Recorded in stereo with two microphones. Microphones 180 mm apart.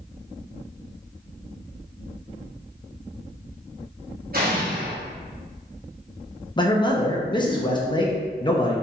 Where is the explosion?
55° right (ahead or behind), 1.2 m.